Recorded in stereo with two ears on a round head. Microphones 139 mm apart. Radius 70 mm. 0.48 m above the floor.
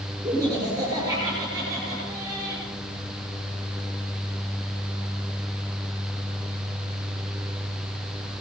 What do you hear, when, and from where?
0.2 s laughter: 25° right (ahead or behind), 7.5 m